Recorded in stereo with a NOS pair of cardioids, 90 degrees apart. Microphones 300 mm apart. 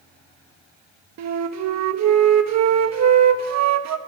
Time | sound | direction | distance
1.2 | a flute | 60° right | 1.7 m